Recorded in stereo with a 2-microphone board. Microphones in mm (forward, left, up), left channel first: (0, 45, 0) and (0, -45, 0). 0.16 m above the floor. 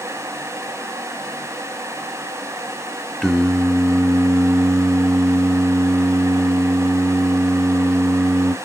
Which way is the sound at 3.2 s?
5° left (ahead or behind).